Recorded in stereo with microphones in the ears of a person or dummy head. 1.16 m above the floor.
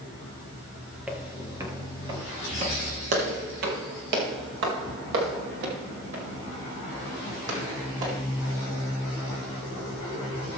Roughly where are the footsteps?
Centre.